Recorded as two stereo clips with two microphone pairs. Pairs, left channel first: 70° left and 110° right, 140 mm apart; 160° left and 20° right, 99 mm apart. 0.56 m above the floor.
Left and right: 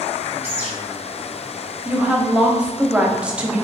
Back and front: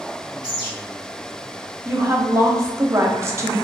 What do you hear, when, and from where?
0.4 s a bird: straight behind, 1.9 m
1.9 s a woman speaking: 30° right, 0.8 m